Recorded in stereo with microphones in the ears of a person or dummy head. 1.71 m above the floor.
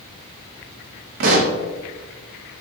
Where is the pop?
45° right (ahead or behind), 0.5 m.